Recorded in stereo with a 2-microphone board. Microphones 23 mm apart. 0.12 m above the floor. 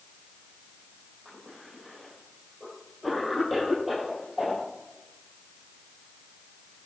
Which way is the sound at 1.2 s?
10° right (ahead or behind).